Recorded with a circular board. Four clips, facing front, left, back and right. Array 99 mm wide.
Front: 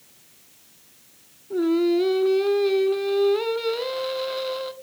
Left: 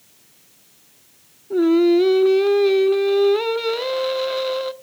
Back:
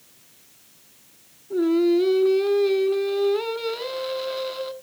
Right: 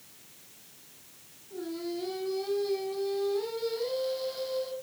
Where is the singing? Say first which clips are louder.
Left 21 dB, back 1 dB; 85° left, 0.7 m.